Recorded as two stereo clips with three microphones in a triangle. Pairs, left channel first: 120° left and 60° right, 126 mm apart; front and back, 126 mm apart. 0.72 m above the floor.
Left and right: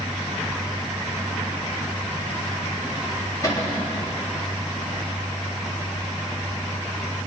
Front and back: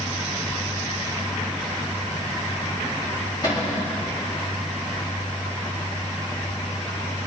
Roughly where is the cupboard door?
Ahead left.